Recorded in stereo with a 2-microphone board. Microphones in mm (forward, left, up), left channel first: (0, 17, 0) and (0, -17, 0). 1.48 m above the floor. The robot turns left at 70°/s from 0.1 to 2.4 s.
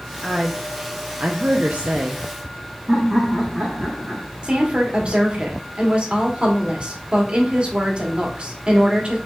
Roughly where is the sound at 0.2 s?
Ahead.